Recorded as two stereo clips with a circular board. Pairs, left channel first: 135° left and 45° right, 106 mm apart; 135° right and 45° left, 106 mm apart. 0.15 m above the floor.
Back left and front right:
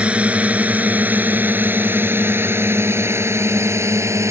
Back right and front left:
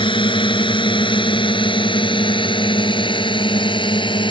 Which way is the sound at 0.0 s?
120° right.